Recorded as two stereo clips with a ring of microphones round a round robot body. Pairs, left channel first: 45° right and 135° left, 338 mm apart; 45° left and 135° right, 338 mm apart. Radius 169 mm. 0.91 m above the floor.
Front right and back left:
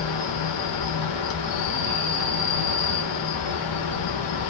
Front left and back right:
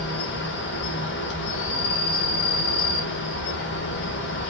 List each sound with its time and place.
0.0 s an insect: 15° right, 2.5 m